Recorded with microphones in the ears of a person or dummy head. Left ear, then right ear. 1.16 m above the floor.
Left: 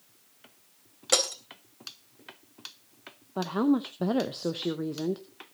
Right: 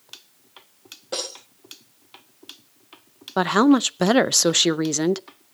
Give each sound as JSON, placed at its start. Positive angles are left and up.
{"t": 1.1, "sound": "breaking glass", "side_deg": 70, "distance_m": 3.0}
{"t": 3.4, "sound": "a woman speaking", "side_deg": -65, "distance_m": 0.5}